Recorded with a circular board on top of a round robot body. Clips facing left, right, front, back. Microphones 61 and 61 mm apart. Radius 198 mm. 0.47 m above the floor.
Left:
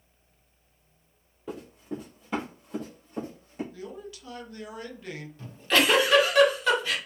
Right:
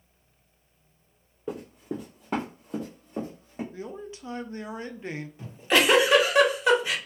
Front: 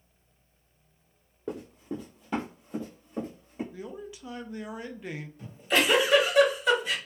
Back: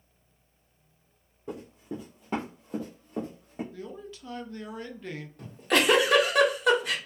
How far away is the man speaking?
About 0.7 m.